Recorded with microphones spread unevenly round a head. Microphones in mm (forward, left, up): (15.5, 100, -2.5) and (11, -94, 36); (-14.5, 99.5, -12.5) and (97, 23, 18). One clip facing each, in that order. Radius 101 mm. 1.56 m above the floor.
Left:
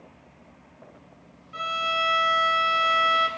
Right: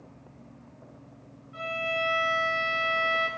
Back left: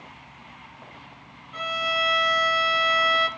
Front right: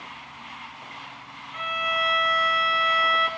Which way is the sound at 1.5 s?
95° left.